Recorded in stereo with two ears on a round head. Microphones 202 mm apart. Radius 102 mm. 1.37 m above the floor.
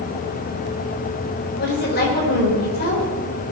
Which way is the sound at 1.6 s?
45° left (ahead or behind).